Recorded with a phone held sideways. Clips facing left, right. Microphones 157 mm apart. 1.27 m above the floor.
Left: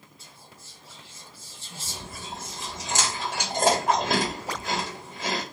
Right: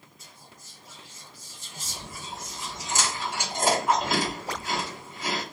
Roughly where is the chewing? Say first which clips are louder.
Left 1 dB; left.